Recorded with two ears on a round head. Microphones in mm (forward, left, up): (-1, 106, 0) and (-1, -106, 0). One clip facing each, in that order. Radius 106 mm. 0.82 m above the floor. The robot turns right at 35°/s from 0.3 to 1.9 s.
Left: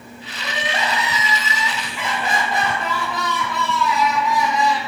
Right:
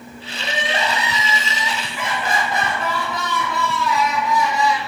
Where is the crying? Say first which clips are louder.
Right 2 dB; 60° right, 1.1 m; by 4.9 s 5° right, 1.1 m.